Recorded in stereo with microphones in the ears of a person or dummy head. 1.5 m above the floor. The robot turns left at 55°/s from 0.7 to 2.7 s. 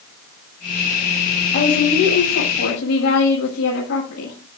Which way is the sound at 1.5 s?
135° left.